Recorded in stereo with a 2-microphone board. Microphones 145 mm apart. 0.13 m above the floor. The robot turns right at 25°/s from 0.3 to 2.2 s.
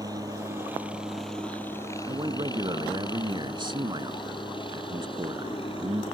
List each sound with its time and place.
0.0 s a helicopter: 25° right (ahead or behind); by 6.1 s 35° left (ahead or behind)
2.1 s a man speaking: 30° right (ahead or behind)